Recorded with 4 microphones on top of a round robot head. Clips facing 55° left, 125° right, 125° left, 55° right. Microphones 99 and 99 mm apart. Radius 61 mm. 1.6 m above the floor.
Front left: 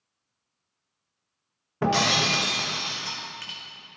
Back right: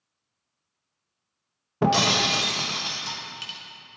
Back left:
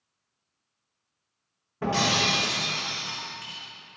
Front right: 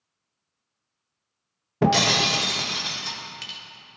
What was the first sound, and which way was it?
Breaking glass, 60° right.